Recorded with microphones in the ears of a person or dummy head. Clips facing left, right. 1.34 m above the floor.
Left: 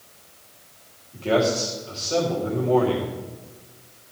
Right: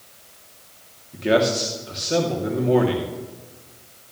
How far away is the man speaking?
About 3 m.